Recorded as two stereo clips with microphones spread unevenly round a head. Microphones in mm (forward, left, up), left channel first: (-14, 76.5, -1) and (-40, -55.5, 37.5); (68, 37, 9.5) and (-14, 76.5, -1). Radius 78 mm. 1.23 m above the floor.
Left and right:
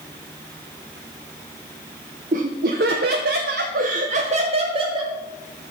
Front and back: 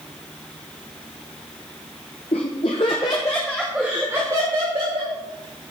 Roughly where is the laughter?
Ahead right.